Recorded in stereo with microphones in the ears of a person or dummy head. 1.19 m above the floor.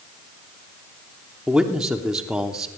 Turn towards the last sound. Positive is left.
turn(degrees=-5)  # may be behind; listen again after turning